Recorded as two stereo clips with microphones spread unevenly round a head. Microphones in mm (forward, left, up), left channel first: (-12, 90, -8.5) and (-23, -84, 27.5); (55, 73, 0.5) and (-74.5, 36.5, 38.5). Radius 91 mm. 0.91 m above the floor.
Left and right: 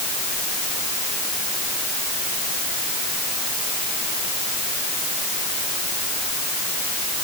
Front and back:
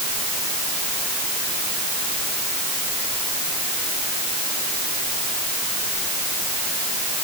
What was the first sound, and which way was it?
Only background noise.